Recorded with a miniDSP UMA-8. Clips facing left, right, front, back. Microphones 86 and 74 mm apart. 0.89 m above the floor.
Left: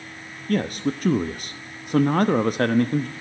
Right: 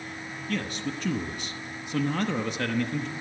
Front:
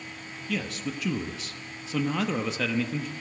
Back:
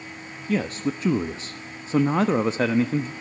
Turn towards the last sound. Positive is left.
turn(degrees=125)